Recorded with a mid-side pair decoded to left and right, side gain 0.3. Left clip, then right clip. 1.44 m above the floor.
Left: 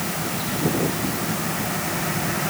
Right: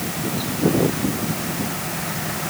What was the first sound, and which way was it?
Only background noise.